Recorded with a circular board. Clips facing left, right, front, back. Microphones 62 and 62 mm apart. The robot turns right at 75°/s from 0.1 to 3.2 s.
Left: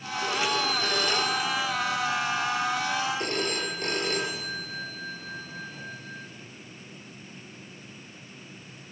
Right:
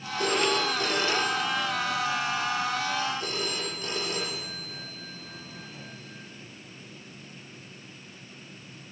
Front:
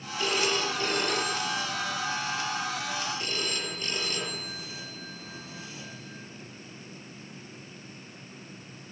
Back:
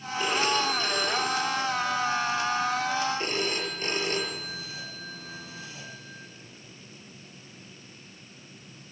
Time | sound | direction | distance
0.2 | a phone ringing | 105° right | 5 m